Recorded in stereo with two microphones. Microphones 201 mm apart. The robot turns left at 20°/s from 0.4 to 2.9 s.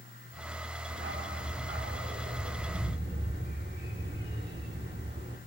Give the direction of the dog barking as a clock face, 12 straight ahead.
3 o'clock.